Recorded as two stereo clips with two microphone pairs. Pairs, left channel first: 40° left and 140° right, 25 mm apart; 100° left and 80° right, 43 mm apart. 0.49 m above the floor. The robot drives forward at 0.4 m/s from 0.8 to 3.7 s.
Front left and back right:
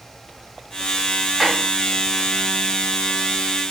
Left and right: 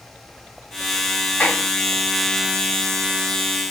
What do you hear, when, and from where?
1.4 s a clap: 145° left, 2.5 m